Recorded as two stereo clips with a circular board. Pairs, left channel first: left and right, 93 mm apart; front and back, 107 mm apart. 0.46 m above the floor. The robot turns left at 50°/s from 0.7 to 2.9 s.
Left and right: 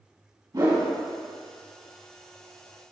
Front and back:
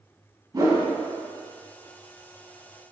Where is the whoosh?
130° right, 3 m; by 0.8 s 135° right, 3 m.